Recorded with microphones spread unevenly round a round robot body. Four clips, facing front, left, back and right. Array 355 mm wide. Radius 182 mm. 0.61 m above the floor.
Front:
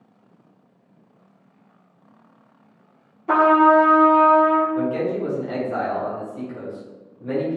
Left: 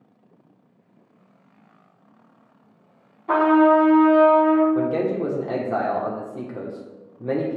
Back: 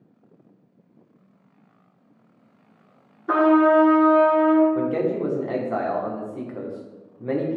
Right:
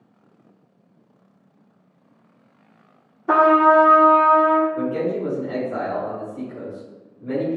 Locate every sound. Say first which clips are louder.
3.3 s a trumpet: right 1 dB, front 2 dB; 90° right, 1.4 m
4.8 s a man speaking: left 1 dB, even; 110° left, 1.8 m